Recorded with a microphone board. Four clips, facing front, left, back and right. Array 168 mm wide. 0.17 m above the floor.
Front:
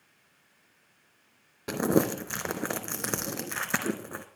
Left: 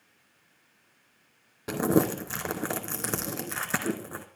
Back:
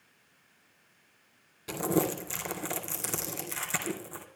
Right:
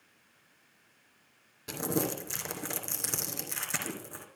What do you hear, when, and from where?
1.7 s crumpling: 40° left, 0.8 m